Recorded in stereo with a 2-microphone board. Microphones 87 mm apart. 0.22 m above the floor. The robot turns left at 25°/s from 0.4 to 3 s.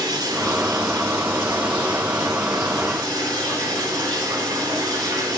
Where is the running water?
55° right, 3 m; by 5.4 s 120° right, 3 m.